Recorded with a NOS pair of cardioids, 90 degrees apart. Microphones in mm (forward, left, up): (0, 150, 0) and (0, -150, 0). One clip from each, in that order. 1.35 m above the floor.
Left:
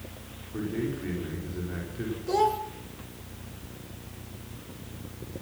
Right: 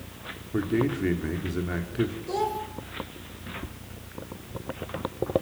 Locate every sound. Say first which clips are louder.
0.5 s a man speaking: right 6 dB; 65° right, 4.5 m
2.3 s a child speaking: left 7 dB; 25° left, 3.5 m